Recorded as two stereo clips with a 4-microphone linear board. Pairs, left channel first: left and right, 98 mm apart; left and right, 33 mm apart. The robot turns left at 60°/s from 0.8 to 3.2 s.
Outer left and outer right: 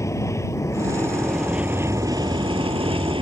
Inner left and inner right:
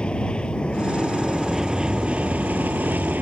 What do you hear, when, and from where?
0.0 s an aircraft: 35° left; by 3.2 s 110° right